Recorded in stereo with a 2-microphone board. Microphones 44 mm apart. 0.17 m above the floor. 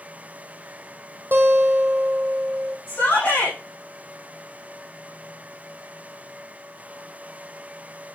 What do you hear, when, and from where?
1.3 s a guitar: 55° right (ahead or behind), 2 m
2.9 s a shout: 35° left (ahead or behind), 6 m